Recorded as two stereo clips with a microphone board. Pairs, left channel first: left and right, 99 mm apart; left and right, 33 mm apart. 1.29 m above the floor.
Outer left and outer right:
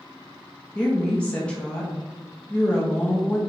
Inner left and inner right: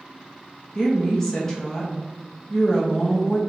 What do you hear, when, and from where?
0.8 s a woman speaking: 10° left (ahead or behind), 0.7 m